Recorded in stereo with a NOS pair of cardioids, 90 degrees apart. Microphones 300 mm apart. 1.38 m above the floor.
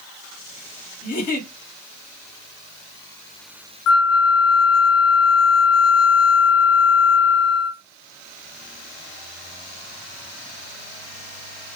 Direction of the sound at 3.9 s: 55° left.